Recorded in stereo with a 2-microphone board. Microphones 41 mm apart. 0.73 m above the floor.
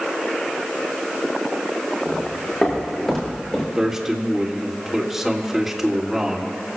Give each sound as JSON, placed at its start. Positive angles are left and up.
{"t": 2.0, "sound": "footsteps", "side_deg": 15, "distance_m": 6.0}
{"t": 3.8, "sound": "a man speaking", "side_deg": -10, "distance_m": 1.7}